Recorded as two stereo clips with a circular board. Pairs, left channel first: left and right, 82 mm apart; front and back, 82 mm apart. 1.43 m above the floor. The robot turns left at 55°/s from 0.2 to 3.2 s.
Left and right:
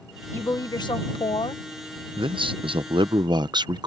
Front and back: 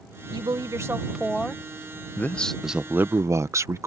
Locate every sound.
0.3 s a woman speaking: 150° left; by 1.6 s 75° left
2.2 s a man speaking: 65° right; by 3.9 s 125° right